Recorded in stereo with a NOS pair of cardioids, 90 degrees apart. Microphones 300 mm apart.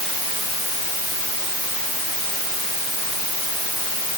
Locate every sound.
Only background noise.